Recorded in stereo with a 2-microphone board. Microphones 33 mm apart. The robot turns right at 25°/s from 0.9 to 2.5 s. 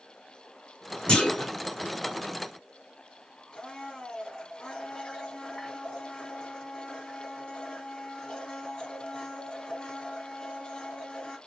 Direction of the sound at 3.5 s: 20° left (ahead or behind).